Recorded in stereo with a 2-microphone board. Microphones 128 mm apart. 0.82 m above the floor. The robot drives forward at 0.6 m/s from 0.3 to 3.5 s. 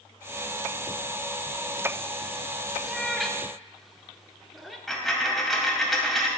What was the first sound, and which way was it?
A cat meowing, centre (ahead or behind).